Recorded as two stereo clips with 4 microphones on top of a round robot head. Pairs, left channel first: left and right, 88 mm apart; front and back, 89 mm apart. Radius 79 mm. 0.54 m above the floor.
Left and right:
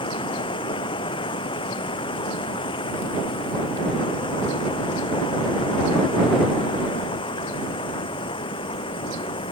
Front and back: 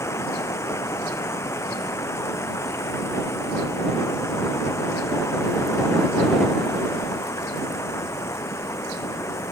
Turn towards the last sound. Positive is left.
turn(degrees=60)